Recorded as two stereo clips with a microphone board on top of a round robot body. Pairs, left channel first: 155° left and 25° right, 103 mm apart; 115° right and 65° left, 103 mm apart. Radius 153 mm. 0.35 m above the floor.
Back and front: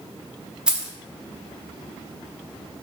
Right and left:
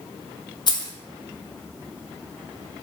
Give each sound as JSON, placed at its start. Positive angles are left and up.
{"t": 0.7, "sound": "keys jangling", "azimuth_deg": -100, "distance_m": 0.6}